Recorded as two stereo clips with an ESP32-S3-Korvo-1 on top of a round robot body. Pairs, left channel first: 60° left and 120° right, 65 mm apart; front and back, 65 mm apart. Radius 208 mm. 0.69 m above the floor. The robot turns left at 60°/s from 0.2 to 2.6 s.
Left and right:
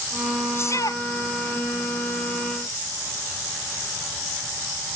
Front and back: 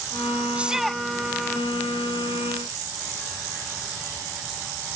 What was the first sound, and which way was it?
A shout, 110° left.